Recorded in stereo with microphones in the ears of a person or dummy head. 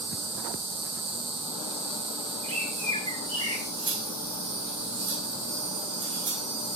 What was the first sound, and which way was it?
An insect, 60° right (ahead or behind).